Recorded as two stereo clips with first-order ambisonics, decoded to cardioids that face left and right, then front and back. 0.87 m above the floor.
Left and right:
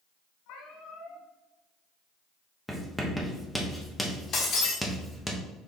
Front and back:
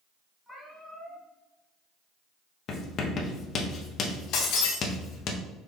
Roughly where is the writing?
Ahead.